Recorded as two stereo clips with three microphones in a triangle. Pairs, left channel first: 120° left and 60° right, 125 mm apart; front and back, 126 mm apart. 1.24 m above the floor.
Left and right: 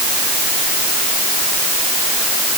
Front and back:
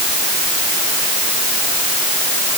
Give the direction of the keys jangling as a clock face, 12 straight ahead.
No keys jangling in this recording.